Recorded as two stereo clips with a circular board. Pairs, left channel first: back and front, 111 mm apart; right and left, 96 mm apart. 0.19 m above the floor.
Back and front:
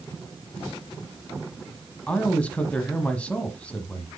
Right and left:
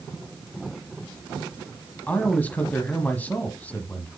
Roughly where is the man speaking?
Behind right.